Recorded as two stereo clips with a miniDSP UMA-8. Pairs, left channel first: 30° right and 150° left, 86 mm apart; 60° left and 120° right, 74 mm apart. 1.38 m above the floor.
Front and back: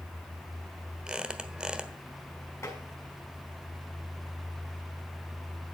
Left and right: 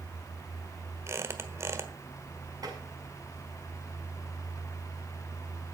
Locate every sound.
1.1 s a squeak: 135° right, 1.3 m
2.6 s tapping: 85° right, 5.5 m